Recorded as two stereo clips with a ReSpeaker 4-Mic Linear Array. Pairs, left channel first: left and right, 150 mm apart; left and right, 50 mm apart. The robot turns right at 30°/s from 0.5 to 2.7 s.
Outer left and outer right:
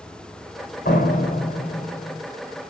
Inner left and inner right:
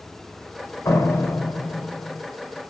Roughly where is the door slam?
Left.